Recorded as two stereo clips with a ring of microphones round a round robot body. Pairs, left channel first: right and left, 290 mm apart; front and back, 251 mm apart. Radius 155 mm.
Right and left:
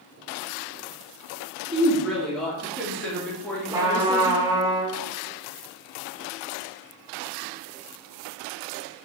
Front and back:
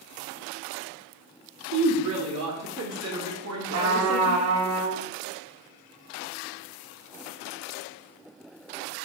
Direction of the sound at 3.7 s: 170° left.